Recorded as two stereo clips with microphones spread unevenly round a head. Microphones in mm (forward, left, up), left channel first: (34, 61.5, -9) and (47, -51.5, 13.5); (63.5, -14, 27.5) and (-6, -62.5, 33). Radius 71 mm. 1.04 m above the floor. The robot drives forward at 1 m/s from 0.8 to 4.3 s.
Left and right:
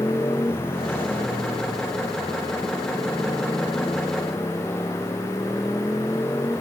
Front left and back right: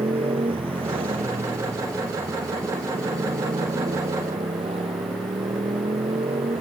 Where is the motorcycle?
175° left.